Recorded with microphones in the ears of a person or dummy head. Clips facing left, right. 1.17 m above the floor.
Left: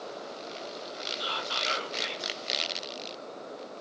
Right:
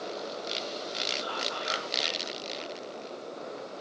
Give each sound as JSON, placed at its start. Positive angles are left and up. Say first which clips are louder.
{"t": 1.2, "sound": "whispering", "louder": "right 1 dB", "side_deg": 40, "distance_m": 0.9}